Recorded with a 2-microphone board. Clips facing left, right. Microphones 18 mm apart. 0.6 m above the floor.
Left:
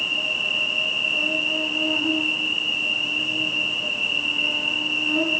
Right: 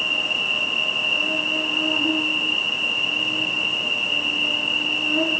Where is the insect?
5° right (ahead or behind), 1.2 m.